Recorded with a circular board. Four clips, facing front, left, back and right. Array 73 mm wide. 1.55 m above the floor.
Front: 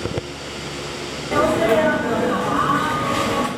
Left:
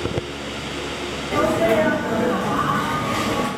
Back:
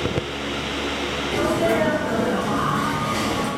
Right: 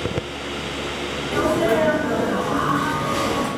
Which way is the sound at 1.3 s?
10° left.